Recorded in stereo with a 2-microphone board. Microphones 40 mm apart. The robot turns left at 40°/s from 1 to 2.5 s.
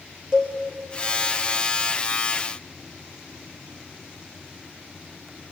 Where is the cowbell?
20° right (ahead or behind), 5.5 m.